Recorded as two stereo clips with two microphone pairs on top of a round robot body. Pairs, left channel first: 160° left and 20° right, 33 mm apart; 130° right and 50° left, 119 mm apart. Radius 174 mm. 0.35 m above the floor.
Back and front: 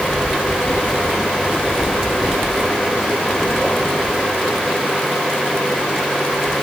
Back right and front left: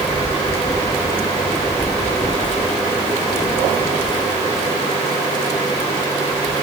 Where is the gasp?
I don't hear a gasp.